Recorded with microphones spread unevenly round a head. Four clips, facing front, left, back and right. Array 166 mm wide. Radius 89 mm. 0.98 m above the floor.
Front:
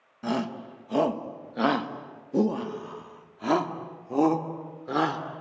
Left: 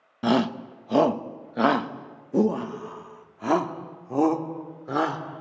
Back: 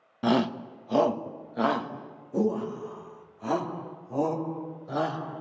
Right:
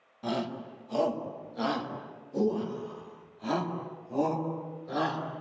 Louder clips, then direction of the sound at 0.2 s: Left 10 dB, back 5 dB; 100° left.